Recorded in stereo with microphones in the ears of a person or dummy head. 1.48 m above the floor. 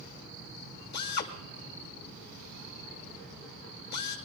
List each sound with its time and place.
0.9 s a drill: 50° left (ahead or behind), 1.6 m